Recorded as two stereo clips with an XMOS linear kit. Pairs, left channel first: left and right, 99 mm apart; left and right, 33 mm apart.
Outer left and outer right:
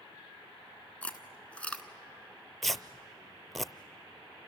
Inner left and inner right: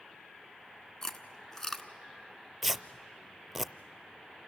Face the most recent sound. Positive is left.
turn(degrees=0)  # may be behind; listen again after turning